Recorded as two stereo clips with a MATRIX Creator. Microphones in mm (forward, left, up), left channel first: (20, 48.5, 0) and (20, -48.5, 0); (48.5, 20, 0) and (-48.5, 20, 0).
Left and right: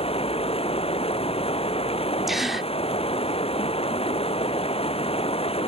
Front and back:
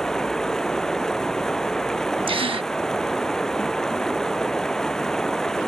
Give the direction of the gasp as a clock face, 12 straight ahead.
6 o'clock.